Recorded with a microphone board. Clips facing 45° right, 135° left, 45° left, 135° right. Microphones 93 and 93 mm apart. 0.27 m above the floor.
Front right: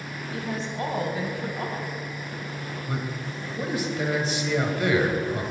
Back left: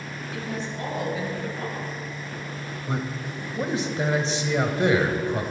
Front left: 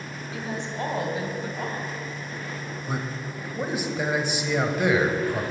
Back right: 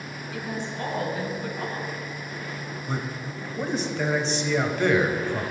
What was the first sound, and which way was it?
A woman speaking, 10° right.